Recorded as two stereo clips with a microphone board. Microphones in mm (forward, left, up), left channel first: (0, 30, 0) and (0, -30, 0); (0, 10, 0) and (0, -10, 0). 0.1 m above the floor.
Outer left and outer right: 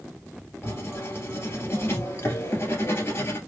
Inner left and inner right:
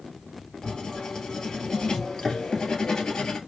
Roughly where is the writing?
Left.